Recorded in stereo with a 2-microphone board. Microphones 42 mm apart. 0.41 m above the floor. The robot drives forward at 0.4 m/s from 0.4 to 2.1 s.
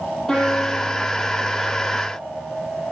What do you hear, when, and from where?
0.3 s a piano: 10° left (ahead or behind), 9 m